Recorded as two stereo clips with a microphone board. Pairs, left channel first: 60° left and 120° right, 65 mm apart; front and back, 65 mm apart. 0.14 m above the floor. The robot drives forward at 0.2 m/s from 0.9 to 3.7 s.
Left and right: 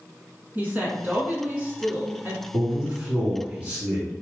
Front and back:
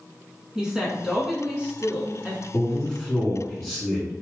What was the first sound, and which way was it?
A woman speaking, 110° right.